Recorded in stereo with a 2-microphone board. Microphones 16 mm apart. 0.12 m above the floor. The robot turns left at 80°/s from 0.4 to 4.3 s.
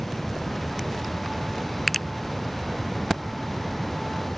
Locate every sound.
1.9 s a finger snap: 10° left (ahead or behind); by 2.1 s 15° left (ahead or behind)